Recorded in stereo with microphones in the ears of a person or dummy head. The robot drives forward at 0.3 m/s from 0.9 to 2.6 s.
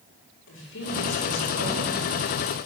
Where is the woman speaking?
65° left (ahead or behind), 4 m; by 2.1 s 60° left (ahead or behind), 4 m.